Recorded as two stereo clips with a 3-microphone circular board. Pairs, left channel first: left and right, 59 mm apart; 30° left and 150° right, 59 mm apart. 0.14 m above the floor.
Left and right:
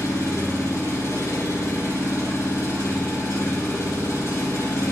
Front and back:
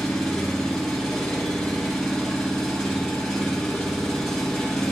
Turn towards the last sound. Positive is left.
turn(degrees=110)